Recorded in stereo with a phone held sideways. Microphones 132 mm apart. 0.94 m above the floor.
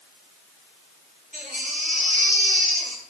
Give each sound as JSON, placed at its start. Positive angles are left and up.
{"t": 1.3, "sound": "a baby crying", "side_deg": 65, "distance_m": 6.5}